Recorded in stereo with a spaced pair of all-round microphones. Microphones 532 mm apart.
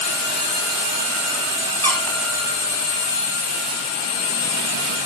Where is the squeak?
5° left (ahead or behind), 4 m.